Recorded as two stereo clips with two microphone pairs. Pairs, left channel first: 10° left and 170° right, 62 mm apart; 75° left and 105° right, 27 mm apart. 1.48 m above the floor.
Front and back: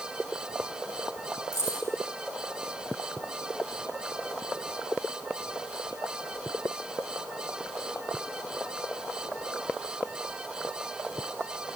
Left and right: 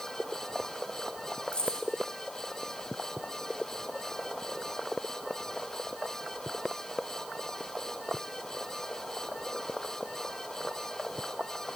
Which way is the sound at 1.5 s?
20° left.